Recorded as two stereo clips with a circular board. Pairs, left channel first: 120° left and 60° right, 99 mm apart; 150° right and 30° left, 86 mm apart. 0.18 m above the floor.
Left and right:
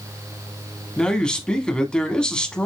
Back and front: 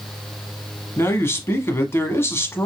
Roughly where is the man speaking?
Behind.